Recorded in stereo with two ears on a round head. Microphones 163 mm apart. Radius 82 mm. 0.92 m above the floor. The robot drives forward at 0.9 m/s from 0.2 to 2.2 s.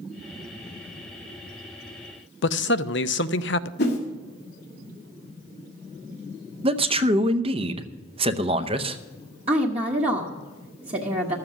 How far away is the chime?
I don't hear a chime.